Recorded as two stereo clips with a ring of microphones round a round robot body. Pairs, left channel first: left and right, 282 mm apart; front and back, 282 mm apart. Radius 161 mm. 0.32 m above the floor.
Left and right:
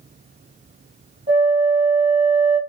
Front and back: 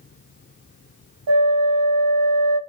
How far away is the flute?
About 1.0 m.